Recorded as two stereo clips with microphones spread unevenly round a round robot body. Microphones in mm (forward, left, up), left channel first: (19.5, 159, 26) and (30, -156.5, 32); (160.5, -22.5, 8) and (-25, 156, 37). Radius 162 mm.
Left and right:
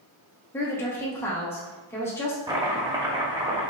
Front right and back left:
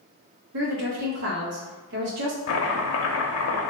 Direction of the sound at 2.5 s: 10° right.